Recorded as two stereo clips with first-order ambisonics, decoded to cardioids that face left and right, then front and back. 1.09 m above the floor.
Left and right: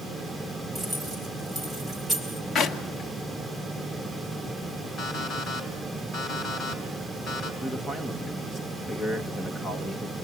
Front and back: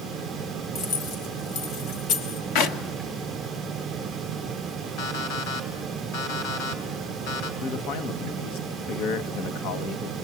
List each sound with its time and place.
0.8 s keys jangling: 10° right, 4 m
2.5 s a clap: 25° left, 1.7 m
5.0 s an alarm clock: 15° left, 4 m
7.6 s a man speaking: straight ahead, 1.4 m